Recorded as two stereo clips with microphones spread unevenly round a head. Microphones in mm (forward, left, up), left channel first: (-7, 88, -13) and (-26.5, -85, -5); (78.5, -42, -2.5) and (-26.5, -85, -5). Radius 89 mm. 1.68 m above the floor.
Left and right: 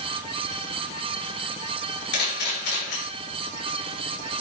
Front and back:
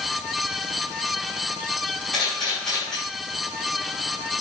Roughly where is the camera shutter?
Left.